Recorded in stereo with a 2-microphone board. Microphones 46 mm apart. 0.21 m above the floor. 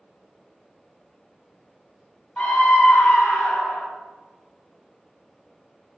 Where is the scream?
30° left (ahead or behind), 1.5 m; by 3.9 s 45° left (ahead or behind), 1.5 m.